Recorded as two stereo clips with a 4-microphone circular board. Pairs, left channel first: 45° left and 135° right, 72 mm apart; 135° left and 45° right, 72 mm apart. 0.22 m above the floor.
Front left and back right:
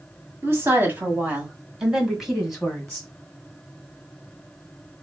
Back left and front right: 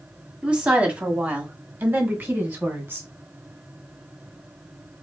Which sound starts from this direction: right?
A woman speaking, at 0.4 s.